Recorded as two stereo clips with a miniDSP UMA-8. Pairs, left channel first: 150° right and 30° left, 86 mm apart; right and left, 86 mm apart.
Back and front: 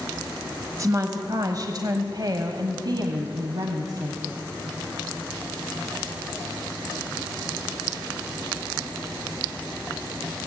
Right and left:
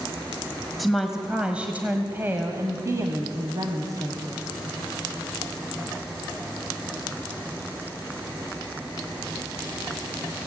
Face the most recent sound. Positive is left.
turn(degrees=60)